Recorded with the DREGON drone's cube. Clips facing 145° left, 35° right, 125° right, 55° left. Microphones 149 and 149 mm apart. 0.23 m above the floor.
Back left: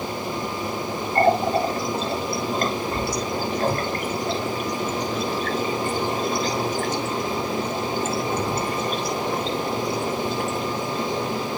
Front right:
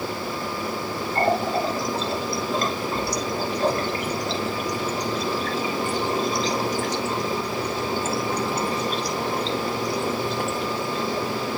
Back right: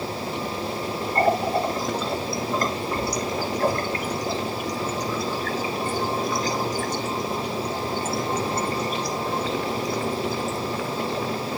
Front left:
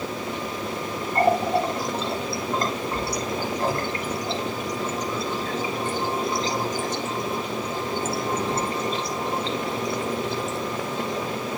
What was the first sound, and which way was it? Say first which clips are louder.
A running tap: back left 4 dB, front left 1 dB; 115° left.